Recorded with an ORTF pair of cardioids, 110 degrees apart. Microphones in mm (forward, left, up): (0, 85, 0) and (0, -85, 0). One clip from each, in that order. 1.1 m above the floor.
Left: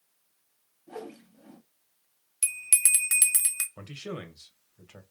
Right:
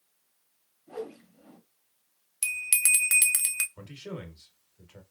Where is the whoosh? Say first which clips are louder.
Right 3 dB; 20° left, 1.0 m.